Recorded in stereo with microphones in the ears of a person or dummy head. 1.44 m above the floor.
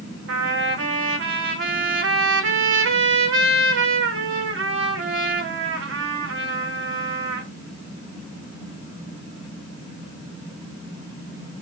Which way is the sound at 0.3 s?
65° right (ahead or behind).